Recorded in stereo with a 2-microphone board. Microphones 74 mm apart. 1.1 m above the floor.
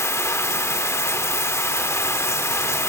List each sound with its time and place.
0.0 s running water: 40° left (ahead or behind), 0.8 m